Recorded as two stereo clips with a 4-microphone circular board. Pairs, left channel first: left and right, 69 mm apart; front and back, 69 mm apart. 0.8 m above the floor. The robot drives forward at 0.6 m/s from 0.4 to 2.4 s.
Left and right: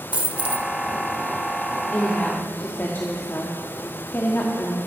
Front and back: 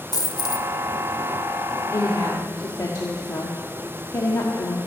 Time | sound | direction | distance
0.1 | a dropped coin | 20° right | 0.9 m
1.9 | a woman speaking | 30° left | 1.5 m